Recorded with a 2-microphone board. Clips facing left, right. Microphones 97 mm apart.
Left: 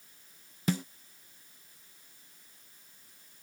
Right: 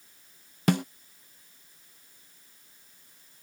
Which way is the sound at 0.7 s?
65° right (ahead or behind).